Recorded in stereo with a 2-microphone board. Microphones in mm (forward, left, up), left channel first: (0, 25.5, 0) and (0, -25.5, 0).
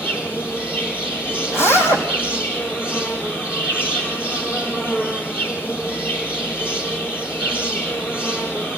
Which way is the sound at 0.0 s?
45° left (ahead or behind).